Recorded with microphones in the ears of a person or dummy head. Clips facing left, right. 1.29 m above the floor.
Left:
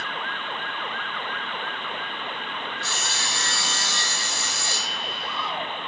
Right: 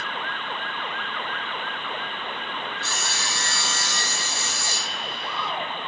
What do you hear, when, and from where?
2.8 s sawing: centre (ahead or behind), 1.1 m